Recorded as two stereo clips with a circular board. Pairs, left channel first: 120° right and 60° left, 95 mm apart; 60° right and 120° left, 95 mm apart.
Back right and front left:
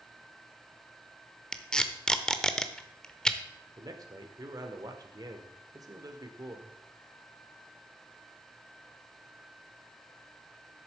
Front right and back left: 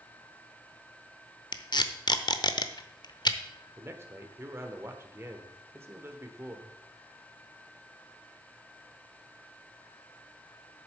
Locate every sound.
1.5 s tape being pulled: 40° right, 0.7 m
3.8 s a man speaking: 70° left, 1.2 m